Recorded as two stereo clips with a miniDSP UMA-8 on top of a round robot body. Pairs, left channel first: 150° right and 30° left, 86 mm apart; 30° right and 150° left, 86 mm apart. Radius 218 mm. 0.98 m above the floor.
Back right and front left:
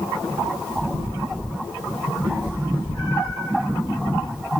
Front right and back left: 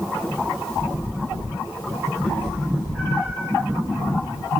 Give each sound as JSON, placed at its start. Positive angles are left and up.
{"t": 2.2, "sound": "a cat meowing", "azimuth_deg": 70, "distance_m": 0.7}